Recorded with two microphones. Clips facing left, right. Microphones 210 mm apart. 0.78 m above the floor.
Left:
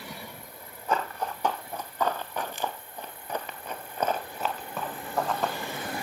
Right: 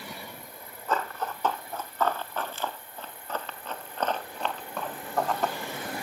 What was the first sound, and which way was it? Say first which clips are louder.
Running footsteps: left 1 dB; 15° left (ahead or behind).